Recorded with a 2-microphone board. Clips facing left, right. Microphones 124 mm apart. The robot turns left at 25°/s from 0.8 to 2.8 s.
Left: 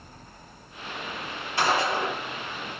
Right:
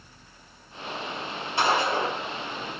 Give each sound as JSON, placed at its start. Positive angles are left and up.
{"t": 1.6, "sound": "a gunshot", "side_deg": -25, "distance_m": 1.7}